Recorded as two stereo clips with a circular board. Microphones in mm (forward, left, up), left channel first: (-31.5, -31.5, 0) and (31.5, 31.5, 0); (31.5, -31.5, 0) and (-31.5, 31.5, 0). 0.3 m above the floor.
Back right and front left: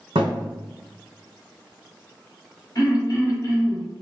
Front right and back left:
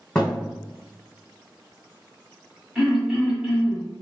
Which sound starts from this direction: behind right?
Throat clearing, at 2.8 s.